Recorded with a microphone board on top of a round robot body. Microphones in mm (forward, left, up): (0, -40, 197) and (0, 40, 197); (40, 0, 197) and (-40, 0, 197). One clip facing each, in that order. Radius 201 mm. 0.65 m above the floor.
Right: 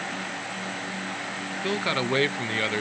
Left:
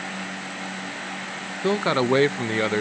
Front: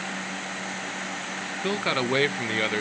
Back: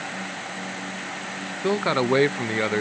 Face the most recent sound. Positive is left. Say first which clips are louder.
# left 6 dB, back 5 dB
turn(degrees=130)